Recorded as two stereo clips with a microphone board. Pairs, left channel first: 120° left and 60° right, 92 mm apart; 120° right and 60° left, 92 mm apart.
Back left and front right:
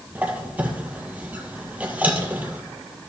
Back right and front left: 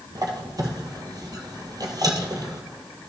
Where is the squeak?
15° left, 1.6 m.